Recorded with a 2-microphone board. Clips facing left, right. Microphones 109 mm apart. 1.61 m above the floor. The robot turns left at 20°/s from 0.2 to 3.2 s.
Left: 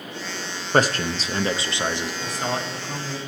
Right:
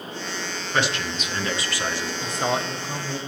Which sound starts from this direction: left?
A man speaking, at 0.7 s.